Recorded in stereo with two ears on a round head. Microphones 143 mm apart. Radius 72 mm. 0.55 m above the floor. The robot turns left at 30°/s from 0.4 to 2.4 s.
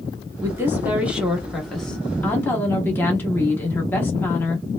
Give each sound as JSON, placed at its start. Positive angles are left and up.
{"t": 0.4, "sound": "a woman speaking", "azimuth_deg": -145, "distance_m": 0.9}